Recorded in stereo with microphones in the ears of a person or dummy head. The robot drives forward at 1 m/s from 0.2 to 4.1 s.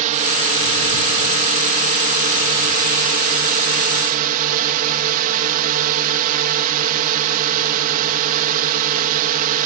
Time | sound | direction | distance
0.0 | a drone | 40° right (ahead or behind) | ?